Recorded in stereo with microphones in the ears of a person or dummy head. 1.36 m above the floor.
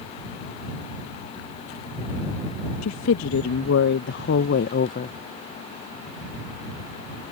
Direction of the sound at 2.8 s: 75° left (ahead or behind).